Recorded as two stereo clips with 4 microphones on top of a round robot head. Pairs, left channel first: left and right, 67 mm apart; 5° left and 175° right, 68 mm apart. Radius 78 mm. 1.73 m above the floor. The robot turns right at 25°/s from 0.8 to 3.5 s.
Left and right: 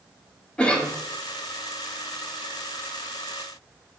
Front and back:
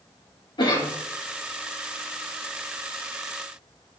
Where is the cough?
15° left, 2.5 m; by 0.9 s 20° left, 2.5 m.